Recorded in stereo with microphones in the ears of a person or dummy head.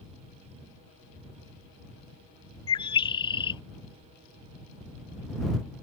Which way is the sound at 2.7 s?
25° left (ahead or behind).